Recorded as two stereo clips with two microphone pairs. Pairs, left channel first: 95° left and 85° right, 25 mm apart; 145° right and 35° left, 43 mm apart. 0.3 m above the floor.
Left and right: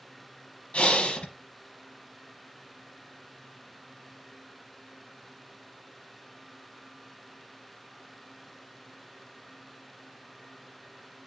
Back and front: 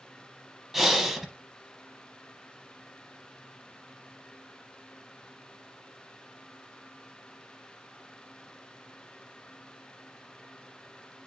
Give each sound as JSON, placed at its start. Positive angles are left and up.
{"t": 0.7, "sound": "breathing", "azimuth_deg": 115, "distance_m": 0.8}